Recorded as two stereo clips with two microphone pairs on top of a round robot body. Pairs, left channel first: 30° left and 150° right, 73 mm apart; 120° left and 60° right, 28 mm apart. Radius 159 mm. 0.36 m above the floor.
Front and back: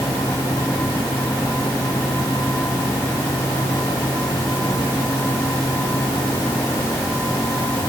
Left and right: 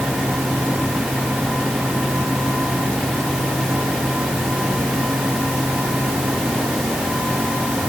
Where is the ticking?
I don't hear ticking.